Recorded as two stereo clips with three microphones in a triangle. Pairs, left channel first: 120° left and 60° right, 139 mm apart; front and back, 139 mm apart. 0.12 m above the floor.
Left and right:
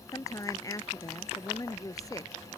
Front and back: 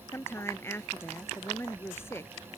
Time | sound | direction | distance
0.1 | a woman speaking | 65° left | ?